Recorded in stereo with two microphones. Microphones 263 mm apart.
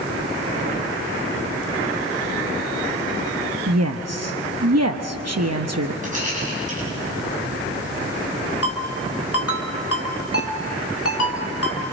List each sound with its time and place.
3.7 s a woman speaking: 75° right (ahead or behind), 0.9 m
6.0 s a rattle: 30° right (ahead or behind), 8.5 m
8.6 s a ringtone: 60° left (ahead or behind), 3.5 m